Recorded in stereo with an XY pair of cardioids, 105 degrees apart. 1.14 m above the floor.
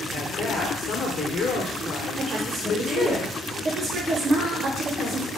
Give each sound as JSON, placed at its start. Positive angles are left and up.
{"t": 0.1, "sound": "a woman speaking", "azimuth_deg": 55, "distance_m": 0.9}
{"t": 2.2, "sound": "a woman speaking", "azimuth_deg": -40, "distance_m": 0.6}